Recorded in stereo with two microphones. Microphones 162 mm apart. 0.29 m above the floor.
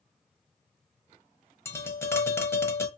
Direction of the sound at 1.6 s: 15° left (ahead or behind).